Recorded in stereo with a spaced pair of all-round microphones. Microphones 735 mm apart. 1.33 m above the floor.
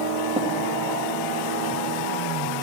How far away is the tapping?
About 1.2 m.